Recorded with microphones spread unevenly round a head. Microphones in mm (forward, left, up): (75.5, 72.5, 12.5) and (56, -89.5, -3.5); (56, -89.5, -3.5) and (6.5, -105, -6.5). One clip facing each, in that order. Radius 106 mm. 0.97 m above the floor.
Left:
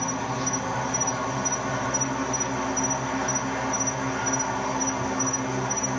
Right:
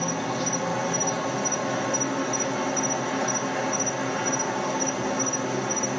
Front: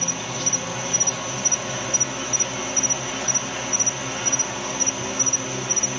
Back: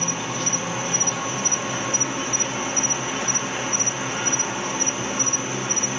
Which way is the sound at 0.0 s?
120° right.